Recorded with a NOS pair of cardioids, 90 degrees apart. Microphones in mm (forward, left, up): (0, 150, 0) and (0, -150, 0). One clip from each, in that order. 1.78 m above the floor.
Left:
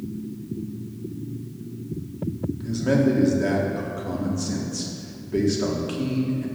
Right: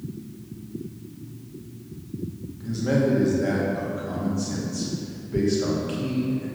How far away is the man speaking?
About 1.9 m.